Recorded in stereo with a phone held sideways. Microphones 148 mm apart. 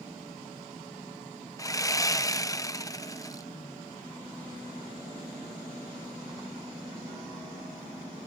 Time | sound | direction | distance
1.6 | sawing | 25° left (ahead or behind) | ?